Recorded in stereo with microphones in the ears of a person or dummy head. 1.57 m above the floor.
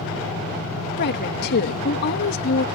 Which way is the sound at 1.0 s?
65° left (ahead or behind).